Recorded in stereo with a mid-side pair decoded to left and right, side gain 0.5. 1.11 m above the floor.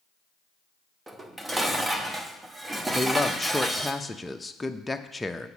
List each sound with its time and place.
1.1 s dishes clattering: 20° right, 1.0 m
2.9 s a man speaking: 10° left, 0.7 m